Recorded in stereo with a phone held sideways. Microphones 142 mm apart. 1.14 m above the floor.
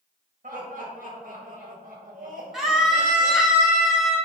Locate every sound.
0.4 s laughter: 65° right (ahead or behind), 2 m
2.5 s a scream: centre (ahead or behind), 1.7 m